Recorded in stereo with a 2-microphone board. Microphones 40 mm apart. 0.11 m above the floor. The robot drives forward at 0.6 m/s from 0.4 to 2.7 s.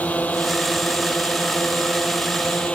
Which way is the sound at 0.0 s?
40° left (ahead or behind).